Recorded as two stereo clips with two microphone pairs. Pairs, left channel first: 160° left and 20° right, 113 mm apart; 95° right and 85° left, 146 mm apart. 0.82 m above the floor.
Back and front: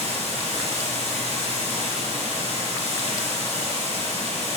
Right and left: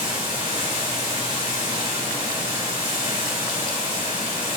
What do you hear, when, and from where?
0.0 s running water: 155° left, 4 m